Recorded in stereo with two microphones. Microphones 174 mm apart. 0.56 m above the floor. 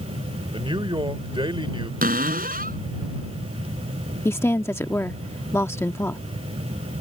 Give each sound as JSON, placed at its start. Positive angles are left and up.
{"t": 0.5, "sound": "a man speaking", "side_deg": -30}
{"t": 2.0, "sound": "a cupboard door", "side_deg": -50}
{"t": 4.2, "sound": "a woman speaking", "side_deg": 15}